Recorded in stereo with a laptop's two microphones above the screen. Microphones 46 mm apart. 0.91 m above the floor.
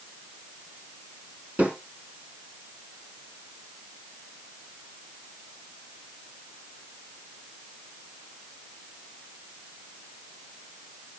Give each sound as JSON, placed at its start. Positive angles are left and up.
{"t": 1.6, "sound": "a snare drum", "side_deg": -45, "distance_m": 5.5}